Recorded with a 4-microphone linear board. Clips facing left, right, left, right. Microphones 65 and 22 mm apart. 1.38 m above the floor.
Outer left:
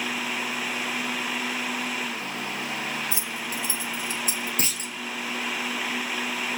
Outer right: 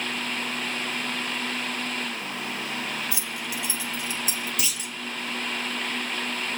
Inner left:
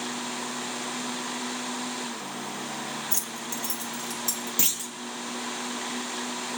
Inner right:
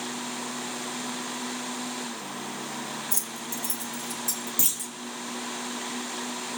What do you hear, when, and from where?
3.1 s keys jangling: 30° left (ahead or behind), 1.0 m; by 4.5 s 50° left (ahead or behind), 1.6 m
4.6 s a clunk: 40° left (ahead or behind), 0.6 m